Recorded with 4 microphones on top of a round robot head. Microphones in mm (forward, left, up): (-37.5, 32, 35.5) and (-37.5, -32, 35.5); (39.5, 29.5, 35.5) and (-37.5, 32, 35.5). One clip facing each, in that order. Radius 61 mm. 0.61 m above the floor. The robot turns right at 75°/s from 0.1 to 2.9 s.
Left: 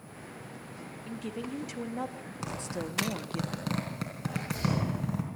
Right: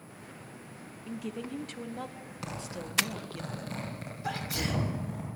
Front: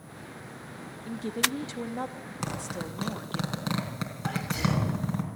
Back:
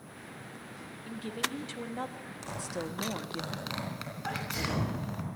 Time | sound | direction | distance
1.1 | a woman speaking | 20° right | 1.0 m
2.4 | a zipper | 15° left | 4 m
4.2 | a sneeze | 100° right | 5 m